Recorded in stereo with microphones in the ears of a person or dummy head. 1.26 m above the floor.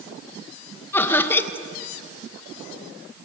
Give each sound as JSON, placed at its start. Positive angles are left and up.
{"t": 0.9, "sound": "laughter", "side_deg": 15, "distance_m": 1.6}